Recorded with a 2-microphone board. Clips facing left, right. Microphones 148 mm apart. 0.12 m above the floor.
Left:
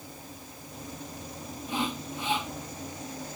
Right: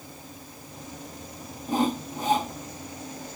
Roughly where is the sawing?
Right.